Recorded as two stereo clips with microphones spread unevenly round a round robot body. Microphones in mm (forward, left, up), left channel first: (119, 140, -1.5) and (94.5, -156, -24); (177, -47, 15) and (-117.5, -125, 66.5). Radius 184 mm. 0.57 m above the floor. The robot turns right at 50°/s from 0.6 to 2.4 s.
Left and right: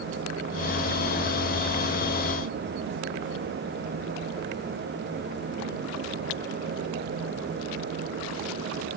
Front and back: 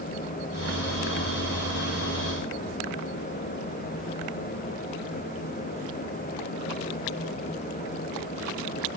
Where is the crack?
No crack in this recording.